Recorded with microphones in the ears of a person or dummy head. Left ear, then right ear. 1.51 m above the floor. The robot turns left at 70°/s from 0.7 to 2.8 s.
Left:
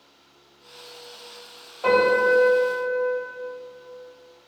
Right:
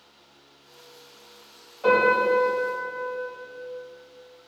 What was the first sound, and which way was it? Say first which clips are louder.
A piano: left 1 dB; 35° left.